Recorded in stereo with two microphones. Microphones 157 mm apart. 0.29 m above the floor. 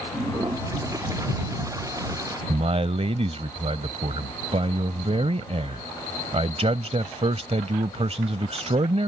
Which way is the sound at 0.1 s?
20° right (ahead or behind).